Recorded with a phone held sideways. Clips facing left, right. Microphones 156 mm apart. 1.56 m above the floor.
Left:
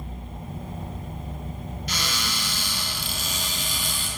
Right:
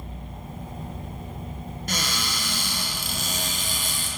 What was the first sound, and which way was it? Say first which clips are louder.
A cupboard door: right 2 dB; 45° right (ahead or behind).